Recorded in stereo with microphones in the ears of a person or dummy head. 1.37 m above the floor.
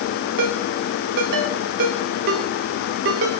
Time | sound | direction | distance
0.4 | a ringtone | 60° right (ahead or behind) | 1.6 m